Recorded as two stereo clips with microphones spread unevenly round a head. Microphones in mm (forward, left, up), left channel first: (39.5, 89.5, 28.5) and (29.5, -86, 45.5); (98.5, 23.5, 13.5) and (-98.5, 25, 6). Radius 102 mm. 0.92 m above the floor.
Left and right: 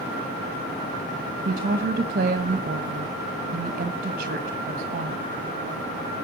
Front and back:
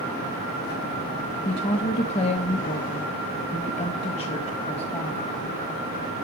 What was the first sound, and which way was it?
A woman speaking, 60° right.